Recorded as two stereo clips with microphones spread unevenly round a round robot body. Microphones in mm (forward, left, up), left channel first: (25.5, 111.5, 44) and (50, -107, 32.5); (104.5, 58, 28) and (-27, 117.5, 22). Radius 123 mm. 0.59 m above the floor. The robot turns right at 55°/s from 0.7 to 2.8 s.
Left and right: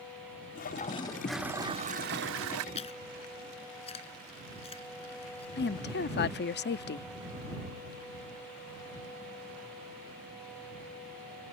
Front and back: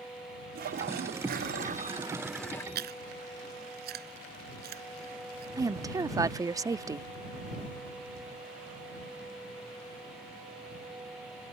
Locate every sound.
0.6 s a toilet flushing: 155° left; by 2.6 s 100° right
2.8 s chewing: 160° left; by 5.5 s 165° left
5.6 s a woman speaking: 100° left